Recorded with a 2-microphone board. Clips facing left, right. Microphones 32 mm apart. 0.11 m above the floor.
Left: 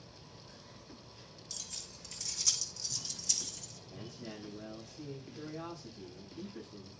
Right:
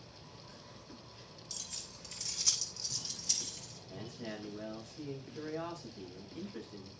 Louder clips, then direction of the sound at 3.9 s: Right 3 dB; 80° right.